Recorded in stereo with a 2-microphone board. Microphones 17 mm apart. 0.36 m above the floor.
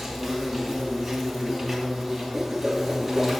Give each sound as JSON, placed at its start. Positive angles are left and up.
{"t": 0.0, "sound": "an insect", "side_deg": 0, "distance_m": 2.5}
{"t": 2.3, "sound": "a whoosh", "side_deg": -25, "distance_m": 1.2}